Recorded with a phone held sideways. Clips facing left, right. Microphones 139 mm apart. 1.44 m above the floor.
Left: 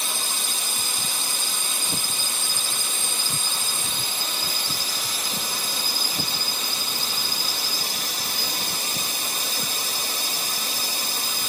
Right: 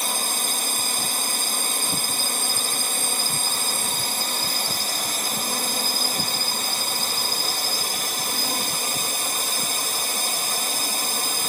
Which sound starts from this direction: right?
A drone, at 0.0 s.